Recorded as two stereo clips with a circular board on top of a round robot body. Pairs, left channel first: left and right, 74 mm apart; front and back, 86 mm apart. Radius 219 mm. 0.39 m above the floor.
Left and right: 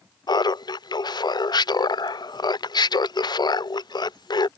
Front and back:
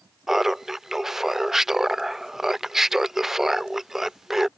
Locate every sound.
0.3 s laughter: 95° left